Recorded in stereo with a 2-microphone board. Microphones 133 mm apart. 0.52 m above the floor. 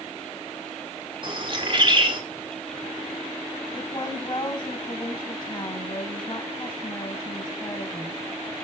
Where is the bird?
40° right (ahead or behind), 1.8 m.